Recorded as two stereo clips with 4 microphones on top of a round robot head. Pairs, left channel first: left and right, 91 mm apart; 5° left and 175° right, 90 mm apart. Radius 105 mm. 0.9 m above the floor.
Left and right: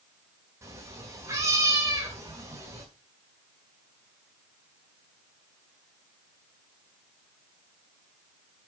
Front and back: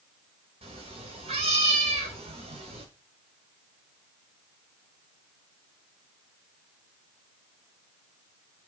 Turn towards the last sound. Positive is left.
turn(degrees=-155)